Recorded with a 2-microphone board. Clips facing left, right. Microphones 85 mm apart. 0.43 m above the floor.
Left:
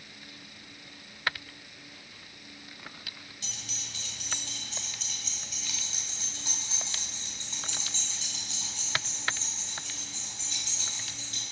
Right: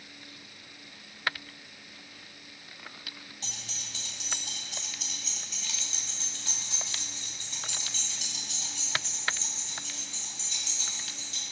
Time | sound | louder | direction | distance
3.4 | keys jangling | even | 35° right (ahead or behind) | 1.8 m